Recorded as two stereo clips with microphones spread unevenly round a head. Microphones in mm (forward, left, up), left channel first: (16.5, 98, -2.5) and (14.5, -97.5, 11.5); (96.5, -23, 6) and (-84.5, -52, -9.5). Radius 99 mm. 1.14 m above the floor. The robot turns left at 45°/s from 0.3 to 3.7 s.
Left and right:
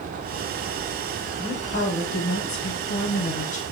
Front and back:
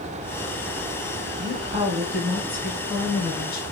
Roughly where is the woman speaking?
Behind left.